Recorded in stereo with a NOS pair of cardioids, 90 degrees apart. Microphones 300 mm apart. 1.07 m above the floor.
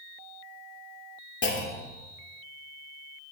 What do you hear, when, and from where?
1.4 s a clunk: 35° left, 2.5 m